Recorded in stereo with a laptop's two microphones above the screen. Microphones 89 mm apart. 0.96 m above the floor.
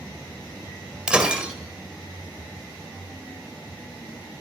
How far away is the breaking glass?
About 1.6 m.